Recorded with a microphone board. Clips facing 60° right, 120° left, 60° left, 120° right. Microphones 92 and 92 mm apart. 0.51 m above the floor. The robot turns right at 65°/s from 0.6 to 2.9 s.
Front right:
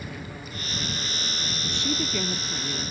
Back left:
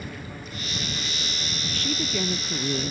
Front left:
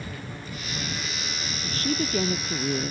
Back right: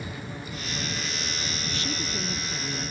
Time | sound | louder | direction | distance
1.6 | a woman speaking | front right 1 dB, front left 8 dB | straight ahead | ?